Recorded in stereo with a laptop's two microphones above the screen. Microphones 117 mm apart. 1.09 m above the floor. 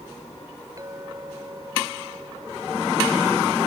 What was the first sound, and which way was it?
A clink, 30° right (ahead or behind).